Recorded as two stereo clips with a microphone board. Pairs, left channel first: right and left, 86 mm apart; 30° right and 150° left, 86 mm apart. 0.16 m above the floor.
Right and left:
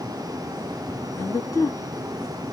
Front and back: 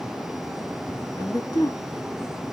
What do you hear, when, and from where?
1.2 s a woman speaking: 50° right, 2.0 m